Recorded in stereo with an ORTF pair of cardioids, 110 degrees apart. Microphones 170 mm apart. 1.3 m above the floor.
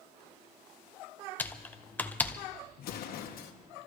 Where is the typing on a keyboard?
10° left, 0.7 m.